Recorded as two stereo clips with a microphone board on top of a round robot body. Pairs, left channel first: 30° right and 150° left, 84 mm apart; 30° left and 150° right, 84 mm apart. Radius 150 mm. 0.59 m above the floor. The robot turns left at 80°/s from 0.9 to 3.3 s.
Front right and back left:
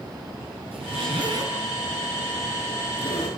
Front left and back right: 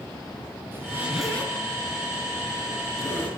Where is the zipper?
145° left, 6.5 m; by 3.3 s 45° right, 6.5 m.